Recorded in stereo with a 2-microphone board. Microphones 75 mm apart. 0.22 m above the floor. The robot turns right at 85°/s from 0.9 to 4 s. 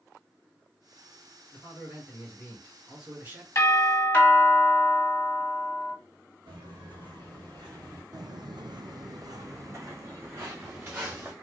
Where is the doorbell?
95° left, 1.6 m; by 6.0 s 135° left, 1.6 m.